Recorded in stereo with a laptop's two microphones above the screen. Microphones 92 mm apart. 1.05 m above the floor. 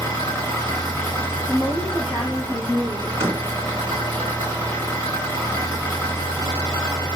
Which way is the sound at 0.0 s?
30° left (ahead or behind).